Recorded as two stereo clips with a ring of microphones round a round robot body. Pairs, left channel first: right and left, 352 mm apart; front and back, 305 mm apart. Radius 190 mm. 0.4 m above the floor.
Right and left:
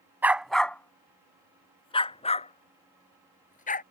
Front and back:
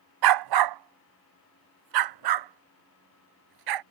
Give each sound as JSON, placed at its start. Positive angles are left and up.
{"t": 0.2, "sound": "a dog barking", "azimuth_deg": 175}